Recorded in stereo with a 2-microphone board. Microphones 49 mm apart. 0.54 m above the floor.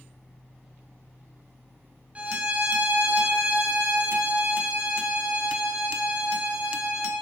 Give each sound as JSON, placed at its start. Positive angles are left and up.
{"t": 2.1, "sound": "a violin", "side_deg": -25, "distance_m": 2.5}